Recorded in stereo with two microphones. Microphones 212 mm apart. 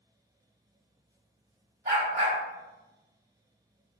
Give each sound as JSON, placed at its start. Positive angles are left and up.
{"t": 1.9, "sound": "a dog barking", "side_deg": -40, "distance_m": 1.5}